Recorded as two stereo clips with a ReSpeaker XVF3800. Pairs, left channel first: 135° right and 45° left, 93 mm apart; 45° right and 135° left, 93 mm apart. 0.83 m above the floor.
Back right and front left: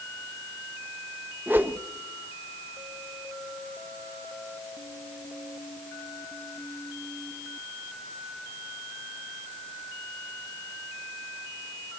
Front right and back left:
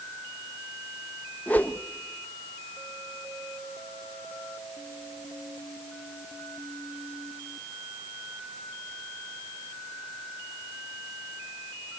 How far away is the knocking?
I don't hear knocking.